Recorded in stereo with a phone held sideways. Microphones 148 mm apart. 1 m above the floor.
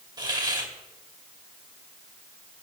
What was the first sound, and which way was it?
A hiss, 30° right (ahead or behind).